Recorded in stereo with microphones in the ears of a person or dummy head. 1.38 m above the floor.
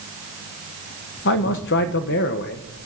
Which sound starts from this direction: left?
A man speaking, at 1.2 s.